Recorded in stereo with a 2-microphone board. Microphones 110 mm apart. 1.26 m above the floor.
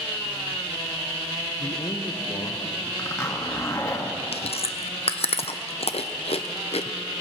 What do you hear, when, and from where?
1.6 s a man speaking: 40° left (ahead or behind), 0.9 m; by 2.9 s 45° left (ahead or behind), 2.5 m
3.0 s a zipper: 30° left (ahead or behind), 1.4 m
4.3 s chewing: 65° left (ahead or behind), 0.6 m